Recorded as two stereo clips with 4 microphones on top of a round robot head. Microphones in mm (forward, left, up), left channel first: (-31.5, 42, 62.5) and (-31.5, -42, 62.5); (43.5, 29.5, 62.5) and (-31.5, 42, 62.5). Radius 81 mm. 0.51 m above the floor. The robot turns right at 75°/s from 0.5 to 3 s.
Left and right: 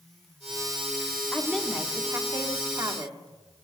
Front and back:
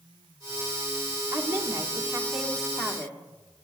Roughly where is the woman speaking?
Behind.